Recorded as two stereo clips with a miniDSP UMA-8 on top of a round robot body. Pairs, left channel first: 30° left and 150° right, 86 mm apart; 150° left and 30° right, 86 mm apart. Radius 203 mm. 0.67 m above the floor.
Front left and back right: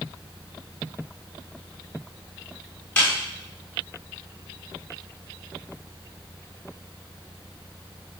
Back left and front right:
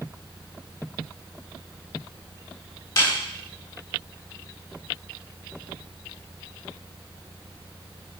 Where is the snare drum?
105° left, 7 m.